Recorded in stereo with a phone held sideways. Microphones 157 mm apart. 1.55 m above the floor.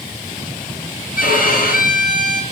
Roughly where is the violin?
Left.